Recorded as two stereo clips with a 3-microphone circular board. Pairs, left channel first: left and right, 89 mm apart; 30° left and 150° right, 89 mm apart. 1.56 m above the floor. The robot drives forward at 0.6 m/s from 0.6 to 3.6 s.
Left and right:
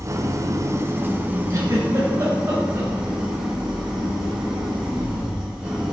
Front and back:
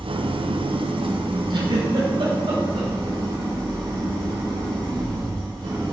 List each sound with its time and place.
0.0 s an engine running: 145° right, 0.7 m; by 5.9 s 170° right, 2.5 m
1.5 s a giggle: 140° right, 2.5 m; by 2.9 s 150° right, 3.5 m